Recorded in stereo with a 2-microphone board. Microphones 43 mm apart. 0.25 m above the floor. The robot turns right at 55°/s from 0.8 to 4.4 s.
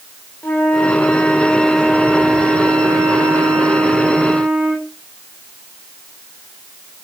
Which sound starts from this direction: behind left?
A flute, at 0.4 s.